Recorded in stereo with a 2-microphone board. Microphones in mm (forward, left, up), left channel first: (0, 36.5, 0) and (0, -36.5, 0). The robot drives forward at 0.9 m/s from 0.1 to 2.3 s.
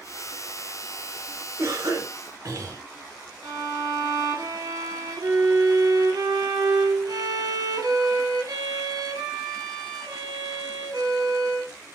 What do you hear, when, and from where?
1.6 s a cough: 40° right (ahead or behind), 1.1 m; by 2.8 s 50° right (ahead or behind), 0.9 m
3.4 s a violin: 65° right (ahead or behind), 1.4 m